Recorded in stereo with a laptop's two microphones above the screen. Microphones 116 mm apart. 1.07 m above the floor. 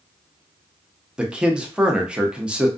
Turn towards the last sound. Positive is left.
turn(degrees=-10)  # may be behind; listen again after turning